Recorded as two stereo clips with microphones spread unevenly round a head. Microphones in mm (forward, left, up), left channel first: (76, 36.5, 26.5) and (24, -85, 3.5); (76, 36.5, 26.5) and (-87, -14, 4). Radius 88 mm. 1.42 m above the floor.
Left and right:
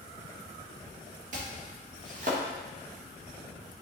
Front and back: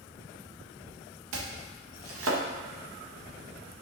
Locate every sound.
1.3 s chopping: 165° right, 1.3 m